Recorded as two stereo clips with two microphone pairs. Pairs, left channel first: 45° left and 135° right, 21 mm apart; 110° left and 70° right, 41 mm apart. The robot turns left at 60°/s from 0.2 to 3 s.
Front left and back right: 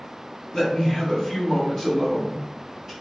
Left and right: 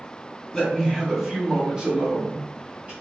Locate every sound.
0.5 s a man speaking: 50° left, 1.7 m; by 2.9 s 95° right, 1.7 m